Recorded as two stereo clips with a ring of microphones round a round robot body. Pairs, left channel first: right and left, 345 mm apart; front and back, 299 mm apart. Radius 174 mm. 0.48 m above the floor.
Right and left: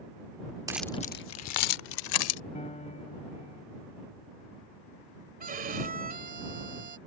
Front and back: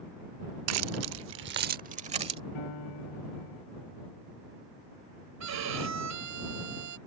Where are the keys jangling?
170° left; by 2.4 s 105° right.